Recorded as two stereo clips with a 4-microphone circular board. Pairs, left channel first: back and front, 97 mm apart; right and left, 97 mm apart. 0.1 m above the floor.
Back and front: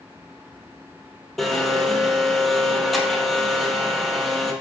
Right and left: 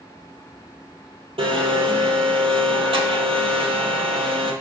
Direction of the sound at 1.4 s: 90° left.